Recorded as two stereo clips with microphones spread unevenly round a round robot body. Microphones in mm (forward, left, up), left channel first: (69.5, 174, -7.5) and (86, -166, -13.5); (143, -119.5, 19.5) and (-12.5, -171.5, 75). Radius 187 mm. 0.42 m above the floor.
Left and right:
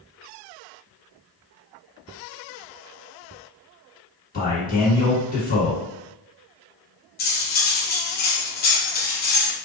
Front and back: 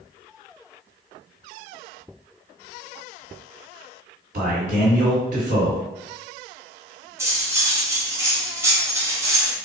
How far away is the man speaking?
About 1.8 m.